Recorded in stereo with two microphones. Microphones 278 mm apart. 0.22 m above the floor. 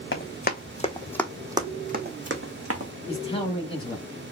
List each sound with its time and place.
0.1 s running footsteps: 45° left (ahead or behind), 1.1 m; by 2.9 s 60° right (ahead or behind), 1.2 m
3.1 s a man speaking: 20° left (ahead or behind), 1.0 m